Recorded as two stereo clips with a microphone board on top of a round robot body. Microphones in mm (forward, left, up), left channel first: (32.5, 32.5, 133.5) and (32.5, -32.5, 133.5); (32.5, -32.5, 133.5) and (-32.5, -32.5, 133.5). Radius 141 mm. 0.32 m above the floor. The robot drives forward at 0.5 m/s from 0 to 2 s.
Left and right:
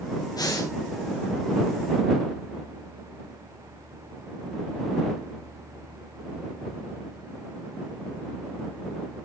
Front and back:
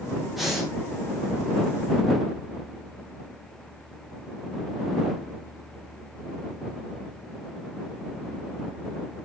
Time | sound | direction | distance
0.3 | breathing | 90° left | 5 m